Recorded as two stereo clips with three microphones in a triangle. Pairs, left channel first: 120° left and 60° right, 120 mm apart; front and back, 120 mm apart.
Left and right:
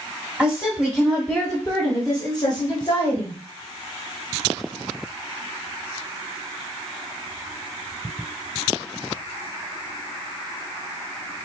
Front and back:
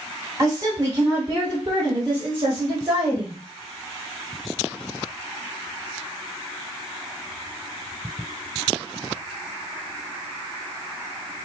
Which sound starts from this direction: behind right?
A woman speaking, at 0.4 s.